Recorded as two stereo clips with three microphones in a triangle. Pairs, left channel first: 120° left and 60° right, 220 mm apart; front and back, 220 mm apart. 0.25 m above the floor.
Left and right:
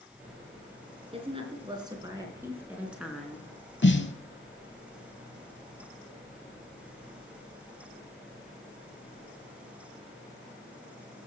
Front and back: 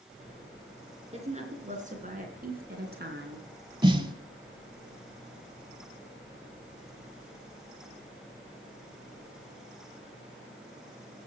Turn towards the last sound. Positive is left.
turn(degrees=120)